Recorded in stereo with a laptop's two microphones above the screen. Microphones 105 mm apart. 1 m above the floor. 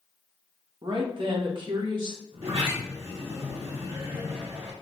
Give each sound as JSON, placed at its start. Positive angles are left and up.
{"t": 0.8, "sound": "a woman speaking", "side_deg": -50, "distance_m": 0.8}
{"t": 2.3, "sound": "a sliding door", "side_deg": -75, "distance_m": 1.1}